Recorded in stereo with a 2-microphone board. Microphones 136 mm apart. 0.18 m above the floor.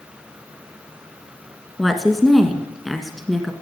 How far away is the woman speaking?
About 1.6 m.